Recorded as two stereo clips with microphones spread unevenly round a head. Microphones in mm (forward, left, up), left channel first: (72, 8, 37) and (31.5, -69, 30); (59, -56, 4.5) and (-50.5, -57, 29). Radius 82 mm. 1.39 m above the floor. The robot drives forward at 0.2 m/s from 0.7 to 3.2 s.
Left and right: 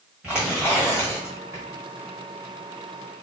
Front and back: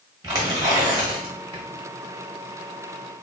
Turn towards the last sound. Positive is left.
turn(degrees=165)